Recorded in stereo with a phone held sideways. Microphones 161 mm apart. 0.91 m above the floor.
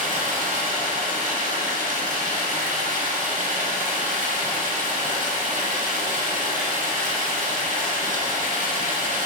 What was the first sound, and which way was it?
Running water, 55° right (ahead or behind).